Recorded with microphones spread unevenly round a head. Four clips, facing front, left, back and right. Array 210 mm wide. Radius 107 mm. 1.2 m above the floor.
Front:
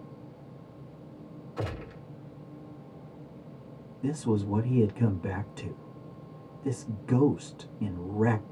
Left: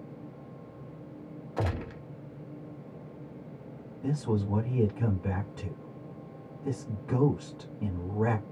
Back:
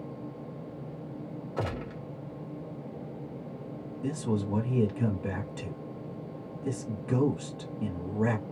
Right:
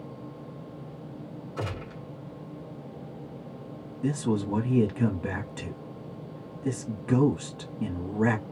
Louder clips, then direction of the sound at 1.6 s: Left 3 dB, back 2 dB; 150° left.